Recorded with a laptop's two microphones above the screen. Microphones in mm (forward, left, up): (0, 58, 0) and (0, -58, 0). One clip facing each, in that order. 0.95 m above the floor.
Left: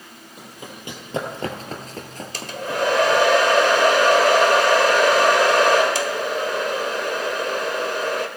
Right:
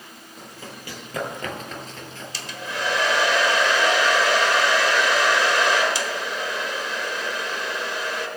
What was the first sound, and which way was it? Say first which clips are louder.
Running footsteps: left 1 dB; 15° left (ahead or behind).